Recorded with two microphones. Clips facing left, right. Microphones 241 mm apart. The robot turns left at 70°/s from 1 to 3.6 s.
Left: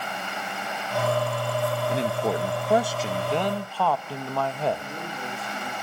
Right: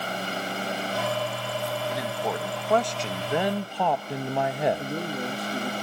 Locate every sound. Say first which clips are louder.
1.9 s a man speaking: left 4 dB; 30° left (ahead or behind), 0.6 m; by 4.8 s 15° right (ahead or behind), 0.6 m
4.8 s a man speaking: right 6 dB; 40° right (ahead or behind), 1.2 m